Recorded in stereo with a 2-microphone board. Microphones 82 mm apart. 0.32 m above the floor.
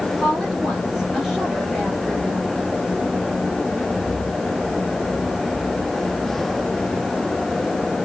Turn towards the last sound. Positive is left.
turn(degrees=0)  # may be behind; listen again after turning